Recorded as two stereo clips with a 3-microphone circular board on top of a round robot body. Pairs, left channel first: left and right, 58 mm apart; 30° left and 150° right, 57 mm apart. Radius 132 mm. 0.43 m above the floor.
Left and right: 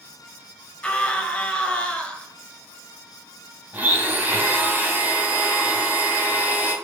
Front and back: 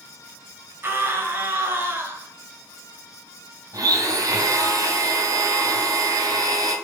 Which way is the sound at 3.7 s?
150° right.